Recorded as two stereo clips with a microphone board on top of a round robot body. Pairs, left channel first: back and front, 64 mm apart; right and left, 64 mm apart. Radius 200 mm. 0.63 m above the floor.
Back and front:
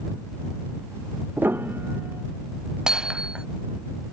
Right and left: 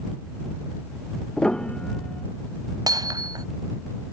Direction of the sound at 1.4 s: 20° right.